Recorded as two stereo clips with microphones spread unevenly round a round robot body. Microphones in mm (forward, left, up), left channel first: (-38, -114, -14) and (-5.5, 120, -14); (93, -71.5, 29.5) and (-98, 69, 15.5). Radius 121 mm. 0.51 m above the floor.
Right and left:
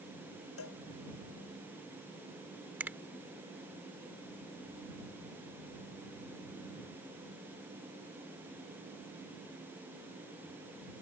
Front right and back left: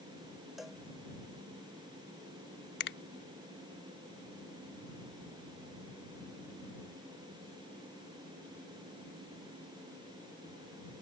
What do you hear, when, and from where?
0.6 s a cowbell: 125° right
2.8 s a finger snap: straight ahead